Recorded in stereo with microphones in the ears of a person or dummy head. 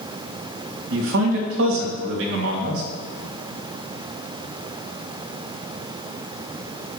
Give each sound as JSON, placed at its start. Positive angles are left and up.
{"t": 0.9, "sound": "a man speaking", "side_deg": -80, "distance_m": 3.0}